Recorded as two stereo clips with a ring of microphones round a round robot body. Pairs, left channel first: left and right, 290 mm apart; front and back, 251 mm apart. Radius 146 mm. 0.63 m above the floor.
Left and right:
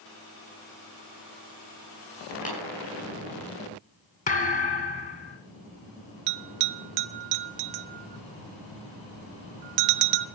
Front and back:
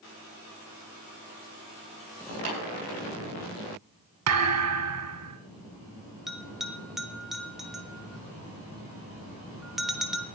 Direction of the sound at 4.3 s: 155° left.